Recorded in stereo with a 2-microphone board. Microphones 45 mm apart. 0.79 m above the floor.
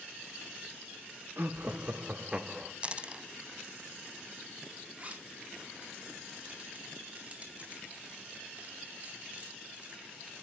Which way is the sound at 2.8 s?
25° right (ahead or behind).